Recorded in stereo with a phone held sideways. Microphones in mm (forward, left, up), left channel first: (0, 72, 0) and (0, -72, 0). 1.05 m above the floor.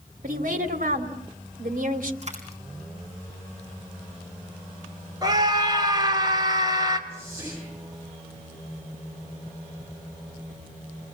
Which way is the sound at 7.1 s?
15° right (ahead or behind).